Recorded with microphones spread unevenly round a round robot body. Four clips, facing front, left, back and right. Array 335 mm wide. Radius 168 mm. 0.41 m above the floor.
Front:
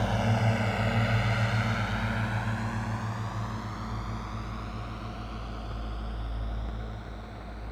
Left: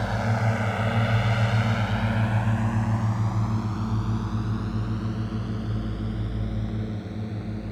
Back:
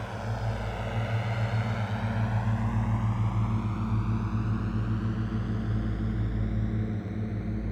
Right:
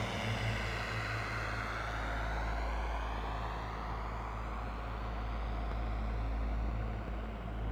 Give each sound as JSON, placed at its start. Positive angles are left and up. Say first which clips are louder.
{"t": 0.0, "sound": "a drone", "louder": "left 12 dB, front 7 dB", "azimuth_deg": 35}